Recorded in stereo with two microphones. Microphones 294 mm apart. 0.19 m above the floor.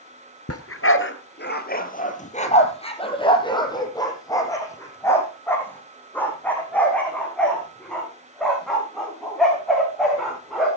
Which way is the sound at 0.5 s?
55° left (ahead or behind).